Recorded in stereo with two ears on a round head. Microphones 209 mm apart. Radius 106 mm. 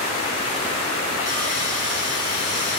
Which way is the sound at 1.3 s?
20° right (ahead or behind).